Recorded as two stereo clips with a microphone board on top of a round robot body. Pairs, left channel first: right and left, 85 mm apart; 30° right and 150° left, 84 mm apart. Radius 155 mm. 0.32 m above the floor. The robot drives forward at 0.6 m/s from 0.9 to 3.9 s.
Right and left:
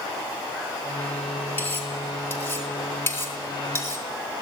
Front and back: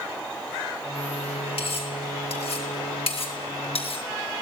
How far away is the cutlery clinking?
About 6 m.